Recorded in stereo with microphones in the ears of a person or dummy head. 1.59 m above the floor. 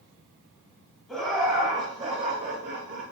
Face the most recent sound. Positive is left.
turn(degrees=-65)  # may be behind; listen again after turning